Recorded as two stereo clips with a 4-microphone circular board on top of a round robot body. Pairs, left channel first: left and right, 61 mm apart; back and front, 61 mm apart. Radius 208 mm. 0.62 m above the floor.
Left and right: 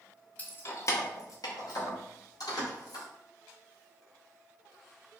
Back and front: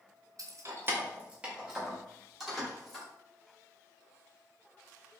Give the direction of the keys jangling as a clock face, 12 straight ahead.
11 o'clock.